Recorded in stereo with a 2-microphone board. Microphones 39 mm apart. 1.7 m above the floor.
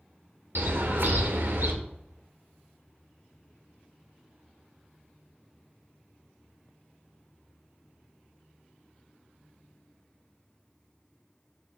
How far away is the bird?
About 1.9 m.